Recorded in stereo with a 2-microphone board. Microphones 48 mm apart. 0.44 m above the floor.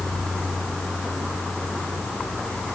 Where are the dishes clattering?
No dishes clattering in this recording.